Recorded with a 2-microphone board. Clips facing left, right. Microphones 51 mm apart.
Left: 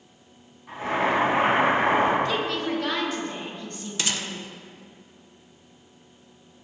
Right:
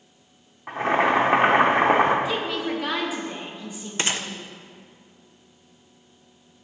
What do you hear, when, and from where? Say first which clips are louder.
0.7 s boiling: right 4 dB; 65° right (ahead or behind), 1.8 m
2.2 s a woman speaking: even; 10° right (ahead or behind), 1.8 m
4.0 s a gunshot: right 3 dB; 35° right (ahead or behind), 0.6 m